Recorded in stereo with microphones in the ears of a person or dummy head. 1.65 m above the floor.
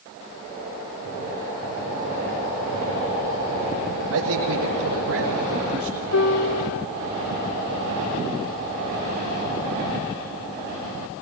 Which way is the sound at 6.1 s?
75° left (ahead or behind).